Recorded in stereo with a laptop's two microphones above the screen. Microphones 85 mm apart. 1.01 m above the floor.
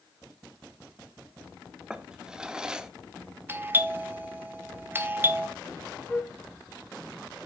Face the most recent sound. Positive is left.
turn(degrees=10)  # may be behind; listen again after turning